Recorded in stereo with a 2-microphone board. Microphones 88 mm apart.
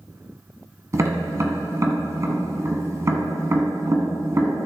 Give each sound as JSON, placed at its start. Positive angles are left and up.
{"t": 0.9, "sound": "tapping", "side_deg": -35, "distance_m": 1.5}